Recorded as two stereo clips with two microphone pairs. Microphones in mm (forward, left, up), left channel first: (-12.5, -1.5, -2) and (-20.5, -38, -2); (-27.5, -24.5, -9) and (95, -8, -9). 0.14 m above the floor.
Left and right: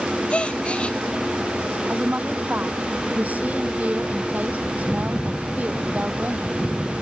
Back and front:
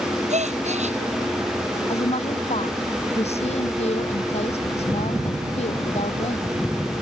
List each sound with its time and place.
0.3 s a gasp: 20° left
1.9 s a woman speaking: 145° right